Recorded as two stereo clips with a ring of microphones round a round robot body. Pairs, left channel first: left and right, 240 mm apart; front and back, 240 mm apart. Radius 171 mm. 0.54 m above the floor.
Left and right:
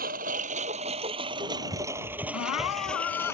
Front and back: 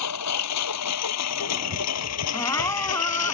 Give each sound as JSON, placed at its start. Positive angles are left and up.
{"t": 0.0, "sound": "a lawn mower", "azimuth_deg": -25}
{"t": 2.3, "sound": "crying", "azimuth_deg": 75}